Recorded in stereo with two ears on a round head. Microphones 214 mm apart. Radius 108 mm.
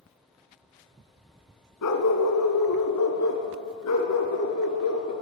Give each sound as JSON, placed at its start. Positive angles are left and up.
{"t": 1.8, "sound": "a dog barking", "side_deg": 75, "distance_m": 1.8}